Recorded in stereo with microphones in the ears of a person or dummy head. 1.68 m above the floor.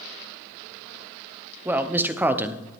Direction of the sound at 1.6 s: 5° right (ahead or behind).